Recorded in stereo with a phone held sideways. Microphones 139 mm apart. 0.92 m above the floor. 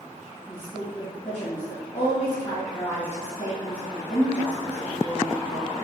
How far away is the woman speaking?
About 1.0 m.